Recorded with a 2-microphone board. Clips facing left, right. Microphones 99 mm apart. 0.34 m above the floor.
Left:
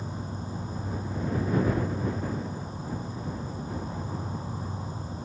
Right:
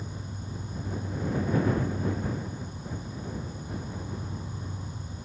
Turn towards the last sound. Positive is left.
turn(degrees=30)  # may be behind; listen again after turning